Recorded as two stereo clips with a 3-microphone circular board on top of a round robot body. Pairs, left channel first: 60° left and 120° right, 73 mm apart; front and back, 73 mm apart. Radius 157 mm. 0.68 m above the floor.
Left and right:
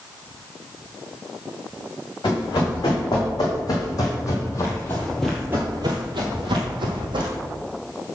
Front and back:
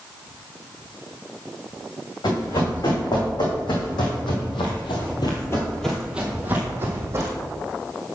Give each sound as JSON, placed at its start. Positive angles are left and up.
{"t": 2.2, "sound": "running footsteps", "azimuth_deg": 25, "distance_m": 3.5}